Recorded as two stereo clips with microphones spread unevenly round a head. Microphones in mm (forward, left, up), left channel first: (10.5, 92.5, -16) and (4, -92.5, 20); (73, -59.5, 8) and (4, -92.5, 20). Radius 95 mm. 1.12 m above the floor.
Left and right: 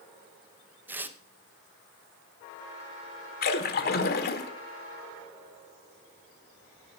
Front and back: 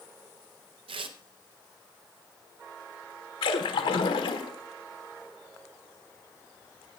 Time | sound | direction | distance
0.9 | tearing paper | 175° right | 0.7 m
3.4 | a splash | 45° left | 1.2 m